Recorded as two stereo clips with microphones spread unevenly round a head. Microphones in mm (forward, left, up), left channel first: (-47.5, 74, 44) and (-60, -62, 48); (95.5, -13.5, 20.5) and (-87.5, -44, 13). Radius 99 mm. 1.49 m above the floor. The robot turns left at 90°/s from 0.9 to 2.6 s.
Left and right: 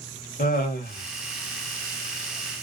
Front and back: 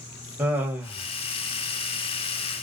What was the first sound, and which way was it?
Laughter, 105° left.